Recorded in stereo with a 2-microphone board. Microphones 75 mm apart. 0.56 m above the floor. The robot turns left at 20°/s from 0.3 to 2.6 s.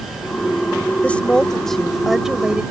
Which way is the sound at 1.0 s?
20° left.